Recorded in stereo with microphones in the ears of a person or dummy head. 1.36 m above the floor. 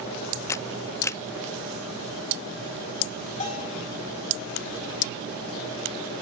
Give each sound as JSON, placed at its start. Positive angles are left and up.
{"t": 0.5, "sound": "a camera shutter", "side_deg": 15, "distance_m": 0.6}
{"t": 3.4, "sound": "a bell", "side_deg": 35, "distance_m": 4.0}